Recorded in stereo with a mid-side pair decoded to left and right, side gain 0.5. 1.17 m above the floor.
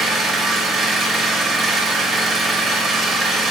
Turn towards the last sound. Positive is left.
turn(degrees=-50)